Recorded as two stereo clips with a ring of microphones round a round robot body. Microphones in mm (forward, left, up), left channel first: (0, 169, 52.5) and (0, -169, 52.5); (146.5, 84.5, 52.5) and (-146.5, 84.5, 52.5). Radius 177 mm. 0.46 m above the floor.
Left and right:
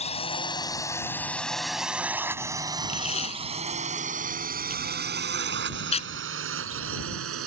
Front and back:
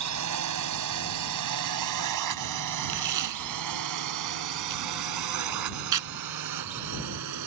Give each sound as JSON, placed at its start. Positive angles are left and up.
{"t": 0.0, "sound": "a drone", "azimuth_deg": 160}
{"t": 2.9, "sound": "tape being pulled", "azimuth_deg": 165}